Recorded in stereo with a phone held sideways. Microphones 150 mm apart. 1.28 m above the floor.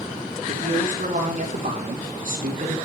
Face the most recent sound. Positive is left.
turn(degrees=-65)  # may be behind; listen again after turning